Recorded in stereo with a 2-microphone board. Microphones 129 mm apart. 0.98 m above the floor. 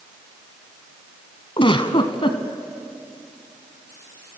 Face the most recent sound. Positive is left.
turn(degrees=45)  # may be behind; listen again after turning